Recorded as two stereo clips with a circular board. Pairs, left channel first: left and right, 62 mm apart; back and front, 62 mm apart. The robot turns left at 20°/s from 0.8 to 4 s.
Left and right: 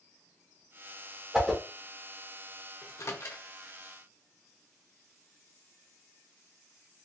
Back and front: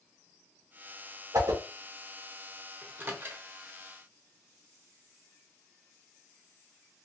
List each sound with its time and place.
1.3 s a whoosh: 5° right, 0.8 m; by 1.6 s 10° right, 0.8 m
2.8 s a microwave: 60° left, 0.6 m; by 3.4 s 50° left, 0.6 m